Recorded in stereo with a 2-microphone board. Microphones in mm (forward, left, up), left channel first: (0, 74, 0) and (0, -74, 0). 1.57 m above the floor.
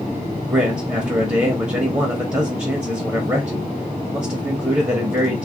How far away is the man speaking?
About 0.7 m.